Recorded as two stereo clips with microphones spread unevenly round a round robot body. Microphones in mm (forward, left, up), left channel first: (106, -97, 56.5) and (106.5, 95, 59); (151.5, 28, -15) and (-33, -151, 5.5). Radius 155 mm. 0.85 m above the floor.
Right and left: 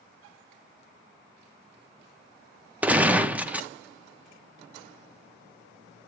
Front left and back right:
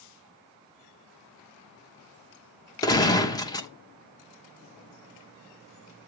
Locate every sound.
2.8 s a gunshot: 20° left, 0.8 m